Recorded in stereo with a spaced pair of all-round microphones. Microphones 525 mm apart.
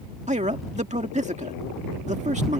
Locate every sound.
0.3 s a man speaking: 15° right (ahead or behind)